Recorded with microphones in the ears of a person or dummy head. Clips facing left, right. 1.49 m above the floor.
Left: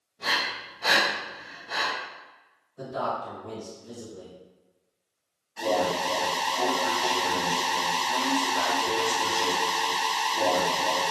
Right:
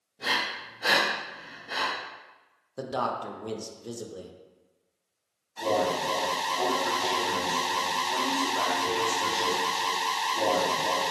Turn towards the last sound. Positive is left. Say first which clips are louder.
# left 1 dB
turn(degrees=5)  # may be behind; listen again after turning